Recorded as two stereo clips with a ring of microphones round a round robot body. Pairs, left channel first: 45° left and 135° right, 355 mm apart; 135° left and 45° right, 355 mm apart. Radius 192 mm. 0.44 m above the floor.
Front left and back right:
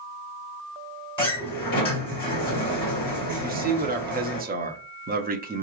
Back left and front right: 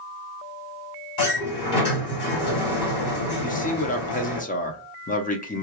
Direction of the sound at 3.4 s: 175° right.